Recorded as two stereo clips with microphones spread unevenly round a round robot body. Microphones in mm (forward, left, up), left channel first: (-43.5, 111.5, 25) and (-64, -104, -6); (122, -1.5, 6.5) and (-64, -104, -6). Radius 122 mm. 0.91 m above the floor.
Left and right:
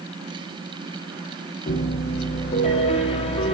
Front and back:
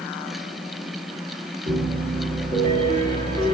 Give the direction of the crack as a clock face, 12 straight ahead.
I don't hear a crack.